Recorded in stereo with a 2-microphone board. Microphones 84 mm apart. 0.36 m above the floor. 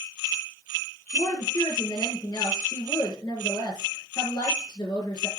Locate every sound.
1.1 s a woman speaking: 40° left (ahead or behind), 5.5 m